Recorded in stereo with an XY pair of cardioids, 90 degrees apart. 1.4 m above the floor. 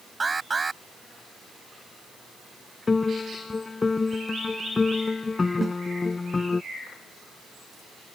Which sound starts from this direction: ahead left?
A piano, at 2.9 s.